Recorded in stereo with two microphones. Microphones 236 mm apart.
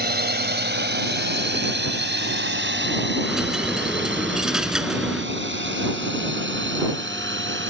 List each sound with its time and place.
0.0 s a drone: 45° right (ahead or behind); by 7.7 s 55° right (ahead or behind)
3.2 s a dropped coin: 5° right (ahead or behind)